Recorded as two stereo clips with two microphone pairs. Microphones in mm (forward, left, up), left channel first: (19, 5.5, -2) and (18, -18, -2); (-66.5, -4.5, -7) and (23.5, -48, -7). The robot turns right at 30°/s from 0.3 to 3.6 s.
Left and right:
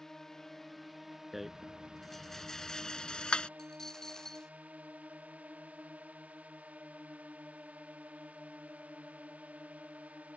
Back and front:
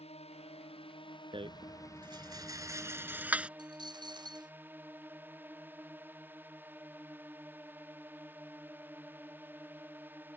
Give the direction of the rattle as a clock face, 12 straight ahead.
12 o'clock.